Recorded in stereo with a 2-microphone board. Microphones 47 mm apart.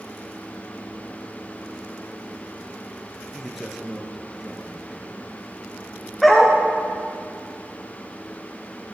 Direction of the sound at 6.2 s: Centre (ahead or behind).